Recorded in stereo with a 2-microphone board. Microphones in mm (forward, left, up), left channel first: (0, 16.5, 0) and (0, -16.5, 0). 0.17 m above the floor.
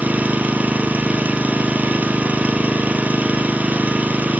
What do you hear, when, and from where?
0.0 s an engine running: 55° right (ahead or behind), 1.5 m